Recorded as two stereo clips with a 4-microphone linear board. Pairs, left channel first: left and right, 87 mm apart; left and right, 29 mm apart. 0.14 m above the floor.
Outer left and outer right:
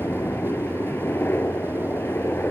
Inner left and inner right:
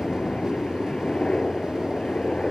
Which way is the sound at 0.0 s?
25° left (ahead or behind).